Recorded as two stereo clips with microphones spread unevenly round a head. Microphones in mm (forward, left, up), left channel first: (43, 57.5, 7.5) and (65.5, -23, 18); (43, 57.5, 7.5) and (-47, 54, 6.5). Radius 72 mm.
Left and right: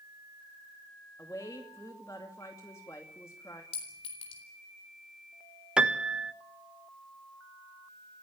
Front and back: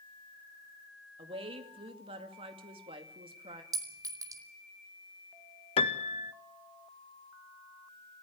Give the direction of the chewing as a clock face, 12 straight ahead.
No chewing in this recording.